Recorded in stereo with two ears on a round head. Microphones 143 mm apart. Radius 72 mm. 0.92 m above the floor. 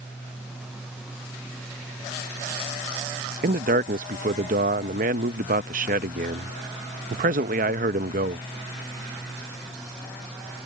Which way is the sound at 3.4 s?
55° right (ahead or behind).